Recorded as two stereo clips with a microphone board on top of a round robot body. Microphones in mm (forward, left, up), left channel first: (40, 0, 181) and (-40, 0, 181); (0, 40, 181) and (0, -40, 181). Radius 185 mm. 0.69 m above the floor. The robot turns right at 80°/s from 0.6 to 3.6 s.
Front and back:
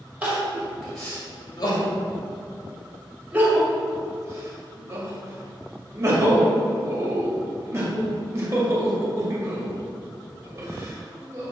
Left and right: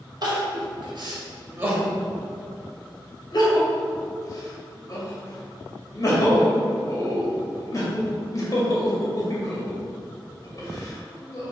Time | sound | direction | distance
0.2 | crying | 115° right | 2 m